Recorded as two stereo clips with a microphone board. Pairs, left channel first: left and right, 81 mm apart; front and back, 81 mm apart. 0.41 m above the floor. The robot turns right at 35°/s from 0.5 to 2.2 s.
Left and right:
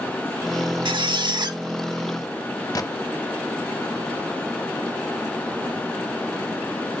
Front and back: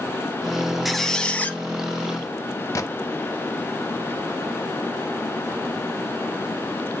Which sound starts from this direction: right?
A squeak, at 0.8 s.